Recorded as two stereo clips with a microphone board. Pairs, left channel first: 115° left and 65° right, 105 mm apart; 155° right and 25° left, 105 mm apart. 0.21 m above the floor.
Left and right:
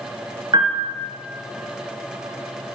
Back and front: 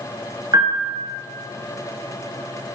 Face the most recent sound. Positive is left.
turn(degrees=-25)